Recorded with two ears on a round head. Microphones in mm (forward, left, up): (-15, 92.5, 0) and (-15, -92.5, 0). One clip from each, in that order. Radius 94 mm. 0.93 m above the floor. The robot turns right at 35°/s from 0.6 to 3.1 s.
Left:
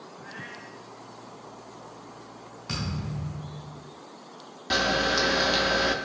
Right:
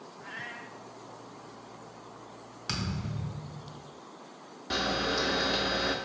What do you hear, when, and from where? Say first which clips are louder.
0.2 s a cat meowing: right 1 dB; 45° right (ahead or behind), 0.7 m; by 0.8 s 50° right (ahead or behind), 0.7 m
2.7 s a thud: left 1 dB; 65° right (ahead or behind), 2 m; by 3.8 s 75° right (ahead or behind), 2 m
4.7 s a camera shutter: left 6 dB; 20° left (ahead or behind), 0.5 m